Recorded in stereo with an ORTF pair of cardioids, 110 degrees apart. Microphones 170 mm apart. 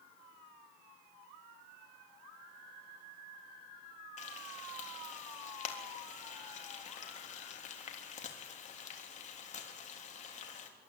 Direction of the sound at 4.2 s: 45° left.